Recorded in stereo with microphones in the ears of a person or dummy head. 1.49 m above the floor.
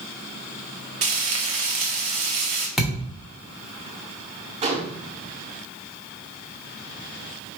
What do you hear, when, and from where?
1.0 s frying: 30° right (ahead or behind), 0.6 m
2.8 s a thud: centre (ahead or behind), 0.9 m
4.6 s a gunshot: 35° right (ahead or behind), 0.8 m